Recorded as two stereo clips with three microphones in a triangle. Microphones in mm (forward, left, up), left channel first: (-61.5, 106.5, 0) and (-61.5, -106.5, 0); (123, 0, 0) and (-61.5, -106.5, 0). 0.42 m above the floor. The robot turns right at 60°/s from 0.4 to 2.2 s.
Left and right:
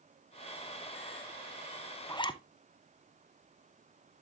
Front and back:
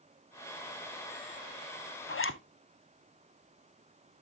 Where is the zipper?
20° left, 0.6 m; by 2.4 s 25° left, 0.6 m.